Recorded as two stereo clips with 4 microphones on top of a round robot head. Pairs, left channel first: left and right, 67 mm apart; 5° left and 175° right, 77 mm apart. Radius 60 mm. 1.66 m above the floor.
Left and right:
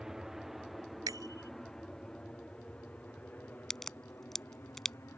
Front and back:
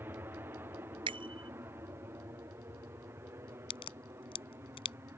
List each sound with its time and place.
0.0 s an aircraft: 165° right; by 5.2 s 140° left
1.1 s a bicycle bell: 140° right
3.7 s a crack: 5° left